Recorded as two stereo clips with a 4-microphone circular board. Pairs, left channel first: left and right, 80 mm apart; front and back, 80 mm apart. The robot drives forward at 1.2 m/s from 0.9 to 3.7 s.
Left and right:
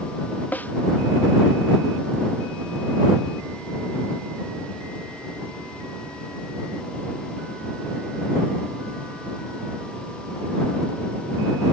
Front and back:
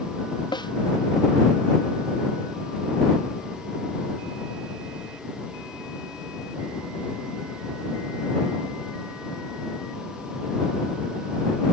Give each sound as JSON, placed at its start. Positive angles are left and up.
{"t": 0.5, "sound": "a snare drum", "azimuth_deg": 20}